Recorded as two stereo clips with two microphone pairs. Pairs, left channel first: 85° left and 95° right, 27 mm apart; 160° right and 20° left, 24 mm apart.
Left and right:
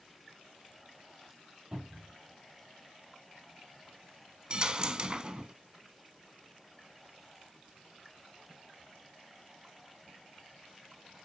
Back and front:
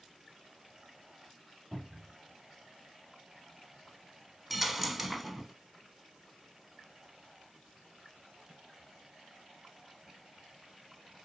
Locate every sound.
1.7 s a cupboard door: 60° right, 4.5 m
4.5 s a dropped coin: 60° right, 0.6 m